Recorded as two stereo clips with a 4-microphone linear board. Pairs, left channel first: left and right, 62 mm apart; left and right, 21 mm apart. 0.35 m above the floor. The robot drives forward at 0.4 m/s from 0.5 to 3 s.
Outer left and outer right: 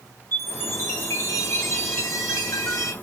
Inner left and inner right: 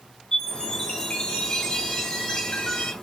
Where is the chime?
40° left (ahead or behind), 3.5 m; by 2.9 s 55° left (ahead or behind), 2.5 m.